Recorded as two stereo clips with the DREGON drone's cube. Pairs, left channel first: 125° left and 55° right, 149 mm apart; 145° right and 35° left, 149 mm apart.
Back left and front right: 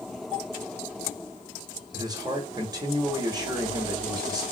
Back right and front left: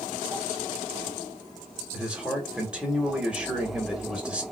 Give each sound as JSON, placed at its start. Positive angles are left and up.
{"t": 1.9, "sound": "a man speaking", "azimuth_deg": -40, "distance_m": 1.1}